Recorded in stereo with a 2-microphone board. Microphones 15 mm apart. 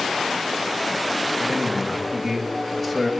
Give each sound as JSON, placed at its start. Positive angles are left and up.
{"t": 1.4, "sound": "a man speaking", "side_deg": -15, "distance_m": 3.0}